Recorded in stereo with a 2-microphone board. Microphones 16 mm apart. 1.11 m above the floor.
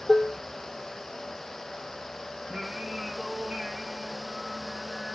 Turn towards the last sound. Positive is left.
turn(degrees=-70)  # may be behind; listen again after turning